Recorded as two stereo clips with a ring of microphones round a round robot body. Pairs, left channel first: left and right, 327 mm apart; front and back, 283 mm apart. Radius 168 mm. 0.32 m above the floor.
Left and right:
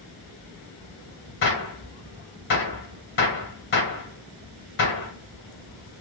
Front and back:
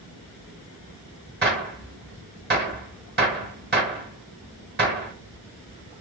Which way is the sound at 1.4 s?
135° left.